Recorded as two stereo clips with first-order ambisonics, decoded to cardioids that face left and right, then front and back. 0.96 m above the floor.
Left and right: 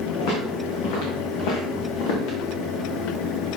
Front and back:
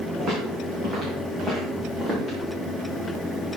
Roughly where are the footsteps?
Behind left.